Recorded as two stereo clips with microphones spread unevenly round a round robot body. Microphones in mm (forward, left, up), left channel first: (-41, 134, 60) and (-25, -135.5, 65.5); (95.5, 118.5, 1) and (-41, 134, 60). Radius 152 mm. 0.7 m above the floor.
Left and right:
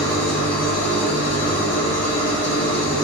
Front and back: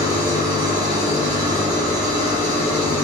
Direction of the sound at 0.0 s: 120° left.